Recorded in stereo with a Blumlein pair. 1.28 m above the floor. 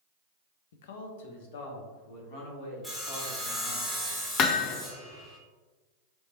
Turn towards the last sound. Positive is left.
turn(degrees=35)